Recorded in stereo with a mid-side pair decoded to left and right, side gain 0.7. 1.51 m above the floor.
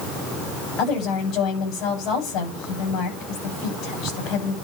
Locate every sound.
0.8 s a woman speaking: 55° left, 8 m